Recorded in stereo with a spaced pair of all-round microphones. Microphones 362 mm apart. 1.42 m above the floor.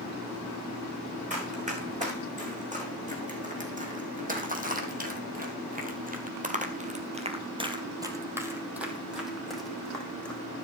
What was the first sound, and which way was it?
Running footsteps, 20° right (ahead or behind).